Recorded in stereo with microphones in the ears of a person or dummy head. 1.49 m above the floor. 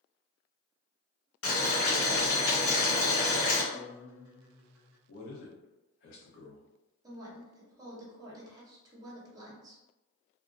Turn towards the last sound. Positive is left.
turn(degrees=-25)  # may be behind; listen again after turning